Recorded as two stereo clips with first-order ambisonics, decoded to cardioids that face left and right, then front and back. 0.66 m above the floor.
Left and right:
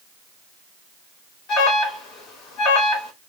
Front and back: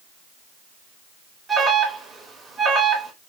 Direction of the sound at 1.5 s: 105° left.